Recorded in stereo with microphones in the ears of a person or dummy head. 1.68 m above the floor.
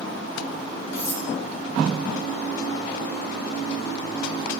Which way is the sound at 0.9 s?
55° left (ahead or behind).